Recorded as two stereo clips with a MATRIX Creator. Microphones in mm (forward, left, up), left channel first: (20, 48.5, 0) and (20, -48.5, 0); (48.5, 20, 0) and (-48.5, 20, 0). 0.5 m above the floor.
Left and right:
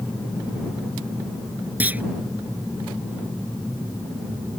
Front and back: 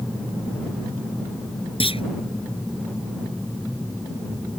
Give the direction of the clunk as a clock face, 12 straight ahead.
1 o'clock.